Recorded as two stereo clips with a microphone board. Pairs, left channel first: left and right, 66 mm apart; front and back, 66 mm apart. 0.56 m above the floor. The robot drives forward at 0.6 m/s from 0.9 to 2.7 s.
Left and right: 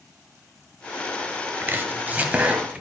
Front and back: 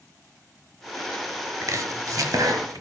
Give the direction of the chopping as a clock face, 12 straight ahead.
5 o'clock.